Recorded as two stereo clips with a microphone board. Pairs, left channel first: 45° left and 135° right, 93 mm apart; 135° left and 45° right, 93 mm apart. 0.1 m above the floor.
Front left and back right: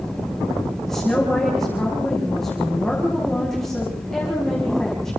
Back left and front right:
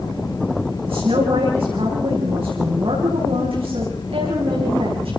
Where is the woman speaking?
40° right, 7.5 m.